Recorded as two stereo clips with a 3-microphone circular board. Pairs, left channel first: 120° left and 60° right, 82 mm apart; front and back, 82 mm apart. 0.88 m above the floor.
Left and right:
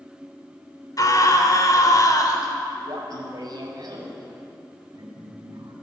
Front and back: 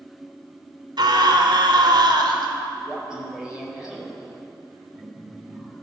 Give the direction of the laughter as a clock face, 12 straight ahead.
3 o'clock.